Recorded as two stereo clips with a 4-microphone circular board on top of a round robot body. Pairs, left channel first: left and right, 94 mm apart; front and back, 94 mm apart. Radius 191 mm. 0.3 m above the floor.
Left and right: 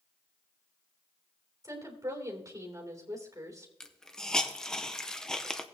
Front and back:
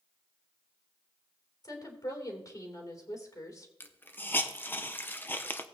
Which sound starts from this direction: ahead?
A hiss, at 3.8 s.